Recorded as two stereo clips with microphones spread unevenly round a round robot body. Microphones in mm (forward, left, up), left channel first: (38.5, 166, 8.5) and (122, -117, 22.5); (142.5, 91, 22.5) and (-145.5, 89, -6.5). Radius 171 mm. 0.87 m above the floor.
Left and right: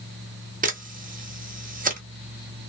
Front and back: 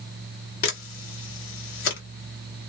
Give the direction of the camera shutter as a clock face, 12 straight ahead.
1 o'clock.